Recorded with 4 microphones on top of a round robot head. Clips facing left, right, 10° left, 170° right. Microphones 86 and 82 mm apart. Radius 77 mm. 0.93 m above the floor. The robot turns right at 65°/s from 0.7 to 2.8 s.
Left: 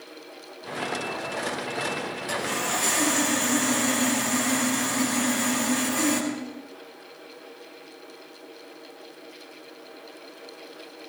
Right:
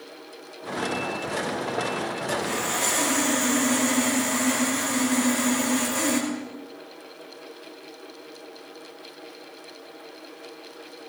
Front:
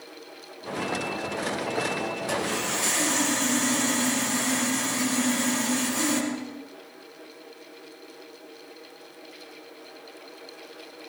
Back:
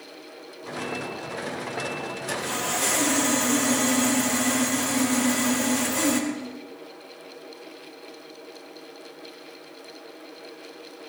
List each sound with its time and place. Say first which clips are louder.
2.3 s sawing: left 1 dB, back 2 dB; 170° left, 5 m; by 6.3 s 155° right, 5 m